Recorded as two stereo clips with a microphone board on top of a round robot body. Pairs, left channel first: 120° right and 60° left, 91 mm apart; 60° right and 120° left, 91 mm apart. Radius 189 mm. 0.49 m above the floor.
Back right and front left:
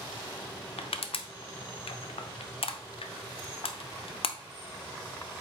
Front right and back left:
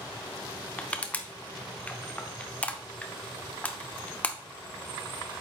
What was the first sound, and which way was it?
Crushing, 135° right.